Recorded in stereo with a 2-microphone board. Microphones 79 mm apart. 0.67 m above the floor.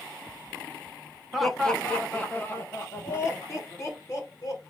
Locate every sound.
1.3 s laughter: 5° right (ahead or behind), 0.7 m; by 4.6 s 45° left (ahead or behind), 2 m